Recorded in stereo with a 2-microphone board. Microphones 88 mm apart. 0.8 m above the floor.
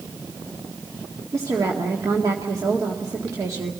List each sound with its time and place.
1.3 s a woman speaking: 40° right (ahead or behind), 2 m